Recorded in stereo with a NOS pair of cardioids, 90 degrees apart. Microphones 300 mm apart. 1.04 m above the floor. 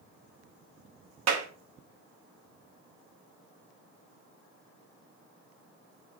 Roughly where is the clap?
Ahead right.